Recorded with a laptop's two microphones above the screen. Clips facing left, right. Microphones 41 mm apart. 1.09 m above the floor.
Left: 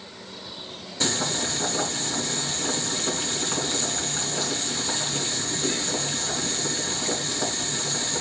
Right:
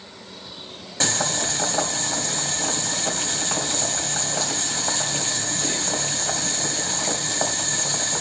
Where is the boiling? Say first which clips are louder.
Right 2 dB; 70° right (ahead or behind), 2.5 m.